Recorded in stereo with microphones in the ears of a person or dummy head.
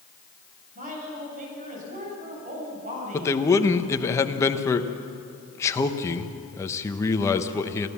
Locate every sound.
0.8 s a woman speaking: 40° right (ahead or behind), 8 m
3.1 s a man speaking: 15° left (ahead or behind), 1.2 m